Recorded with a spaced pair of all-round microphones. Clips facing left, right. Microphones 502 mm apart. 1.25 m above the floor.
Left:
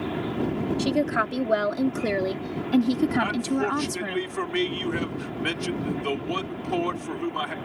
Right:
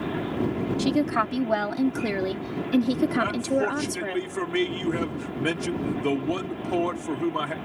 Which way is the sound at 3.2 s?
65° right (ahead or behind).